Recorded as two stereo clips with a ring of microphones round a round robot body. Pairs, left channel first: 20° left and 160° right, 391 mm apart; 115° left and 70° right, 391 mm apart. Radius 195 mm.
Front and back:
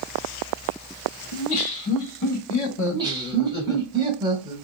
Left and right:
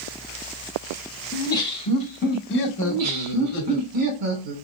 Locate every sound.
1.3 s laughter: 30° left, 1.9 m; by 3.8 s 105° left, 1.6 m
2.8 s laughter: 80° right, 2.0 m